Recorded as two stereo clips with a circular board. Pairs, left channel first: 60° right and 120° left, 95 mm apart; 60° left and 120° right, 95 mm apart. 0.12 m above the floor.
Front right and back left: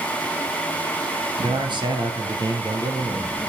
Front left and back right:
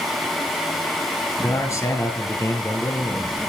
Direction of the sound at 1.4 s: 105° left.